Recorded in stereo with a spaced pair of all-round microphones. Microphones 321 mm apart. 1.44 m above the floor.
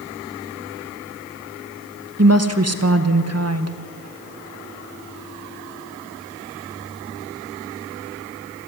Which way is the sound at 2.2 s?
50° right (ahead or behind).